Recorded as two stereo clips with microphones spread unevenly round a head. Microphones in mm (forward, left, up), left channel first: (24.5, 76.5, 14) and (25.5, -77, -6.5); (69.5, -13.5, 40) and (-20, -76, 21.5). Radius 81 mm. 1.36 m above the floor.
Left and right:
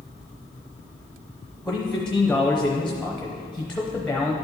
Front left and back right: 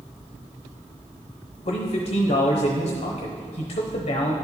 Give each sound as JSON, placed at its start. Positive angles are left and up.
{"t": 1.6, "sound": "a man speaking", "azimuth_deg": 5, "distance_m": 0.8}